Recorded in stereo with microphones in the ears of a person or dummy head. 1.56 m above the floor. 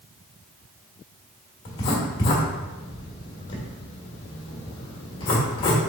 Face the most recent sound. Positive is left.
turn(degrees=25)  # may be behind; listen again after turning